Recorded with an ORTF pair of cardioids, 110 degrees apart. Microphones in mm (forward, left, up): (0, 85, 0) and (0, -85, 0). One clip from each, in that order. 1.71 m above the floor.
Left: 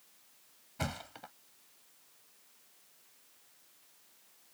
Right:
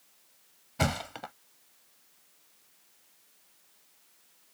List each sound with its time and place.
0.8 s a thud: 50° right